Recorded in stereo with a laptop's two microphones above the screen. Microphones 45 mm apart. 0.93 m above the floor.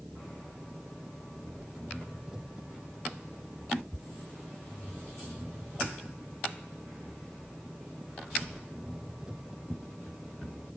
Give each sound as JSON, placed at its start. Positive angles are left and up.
{"t": 0.0, "sound": "an engine running", "side_deg": -15}